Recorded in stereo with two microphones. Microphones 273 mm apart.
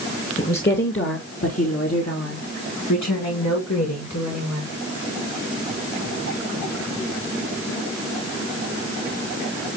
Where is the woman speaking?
30° left (ahead or behind), 2.5 m; by 4.7 s 85° left, 5.5 m.